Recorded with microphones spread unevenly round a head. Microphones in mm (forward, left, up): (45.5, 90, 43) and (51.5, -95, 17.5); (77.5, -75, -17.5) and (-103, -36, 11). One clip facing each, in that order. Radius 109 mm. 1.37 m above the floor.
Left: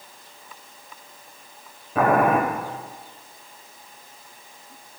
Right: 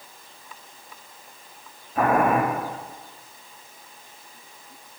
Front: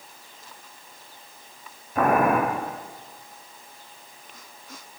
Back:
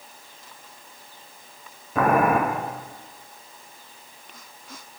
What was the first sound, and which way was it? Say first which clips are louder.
Boiling: left 2 dB, back 1 dB; 130° left.